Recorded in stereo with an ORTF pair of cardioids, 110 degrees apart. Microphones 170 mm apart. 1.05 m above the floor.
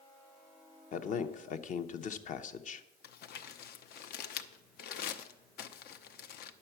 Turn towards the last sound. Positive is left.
turn(degrees=65)